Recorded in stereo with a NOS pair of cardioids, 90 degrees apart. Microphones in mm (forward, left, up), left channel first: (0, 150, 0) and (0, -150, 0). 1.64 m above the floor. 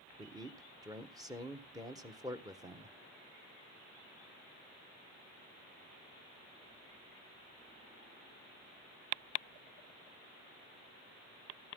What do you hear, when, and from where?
0.2 s a man speaking: 10° right, 1.4 m